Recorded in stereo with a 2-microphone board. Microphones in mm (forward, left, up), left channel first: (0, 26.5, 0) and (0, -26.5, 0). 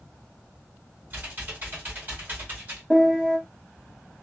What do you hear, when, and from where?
1.1 s typing on a keyboard: 35° right (ahead or behind), 1.8 m
2.9 s a piano: 10° right (ahead or behind), 1.0 m